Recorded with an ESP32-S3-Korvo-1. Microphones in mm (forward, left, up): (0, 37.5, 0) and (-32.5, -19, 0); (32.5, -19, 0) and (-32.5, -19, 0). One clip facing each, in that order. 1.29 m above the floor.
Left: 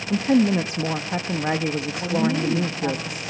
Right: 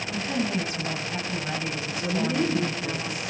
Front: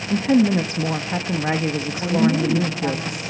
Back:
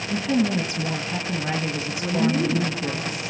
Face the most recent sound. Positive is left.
turn(degrees=30)